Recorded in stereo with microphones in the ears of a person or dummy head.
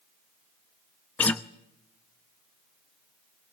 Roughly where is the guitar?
Centre.